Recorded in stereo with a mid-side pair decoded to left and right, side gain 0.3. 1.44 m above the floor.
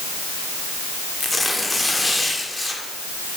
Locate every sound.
1.2 s tearing paper: 30° left, 2.5 m